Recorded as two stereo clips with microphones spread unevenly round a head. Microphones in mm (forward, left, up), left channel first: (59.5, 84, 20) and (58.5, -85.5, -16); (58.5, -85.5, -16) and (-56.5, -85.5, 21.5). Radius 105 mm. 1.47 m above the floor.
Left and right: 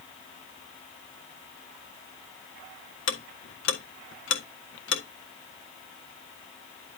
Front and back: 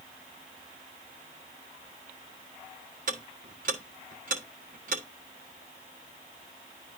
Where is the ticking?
130° left, 1.5 m.